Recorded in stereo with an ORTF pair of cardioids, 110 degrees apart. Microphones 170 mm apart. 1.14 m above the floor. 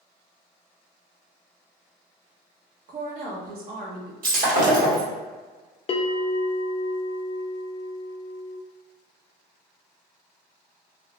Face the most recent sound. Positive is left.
turn(degrees=35)